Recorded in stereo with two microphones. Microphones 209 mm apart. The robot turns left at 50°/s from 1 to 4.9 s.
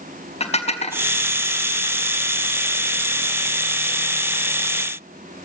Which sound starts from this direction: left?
Dishes clattering, at 0.4 s.